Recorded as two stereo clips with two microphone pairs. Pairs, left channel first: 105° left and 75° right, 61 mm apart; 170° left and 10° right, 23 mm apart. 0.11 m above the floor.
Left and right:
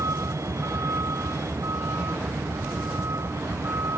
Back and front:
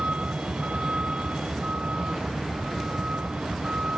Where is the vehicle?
40° right; by 4.0 s 35° right.